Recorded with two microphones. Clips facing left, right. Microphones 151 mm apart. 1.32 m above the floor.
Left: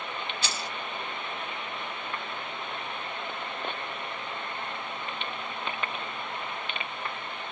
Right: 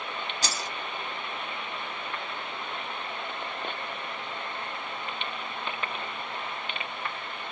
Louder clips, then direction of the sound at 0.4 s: Right 1 dB; 40° right (ahead or behind).